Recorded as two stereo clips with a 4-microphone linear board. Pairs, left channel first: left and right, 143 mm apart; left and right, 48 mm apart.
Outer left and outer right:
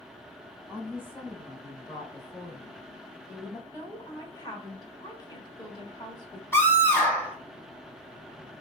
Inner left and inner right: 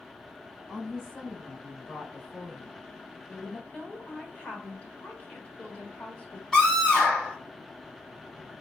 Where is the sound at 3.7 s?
30° left (ahead or behind), 1.1 m.